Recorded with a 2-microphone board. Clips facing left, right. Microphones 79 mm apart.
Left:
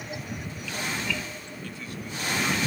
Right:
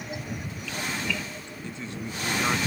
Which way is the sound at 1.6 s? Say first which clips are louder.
Right 3 dB; 25° right (ahead or behind).